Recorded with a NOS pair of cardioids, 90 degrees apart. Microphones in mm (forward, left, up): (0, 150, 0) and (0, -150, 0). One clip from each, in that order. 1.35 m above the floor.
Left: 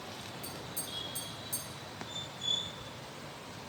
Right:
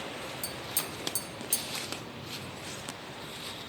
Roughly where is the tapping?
Right.